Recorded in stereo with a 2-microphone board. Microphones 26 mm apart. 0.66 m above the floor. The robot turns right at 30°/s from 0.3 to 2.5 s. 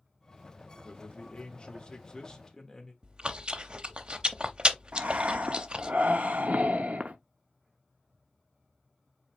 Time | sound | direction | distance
0.8 | a man speaking | 110° left | 1.5 m
3.0 | chewing | 40° right (ahead or behind) | 0.5 m
4.9 | breathing | 65° right (ahead or behind) | 0.6 m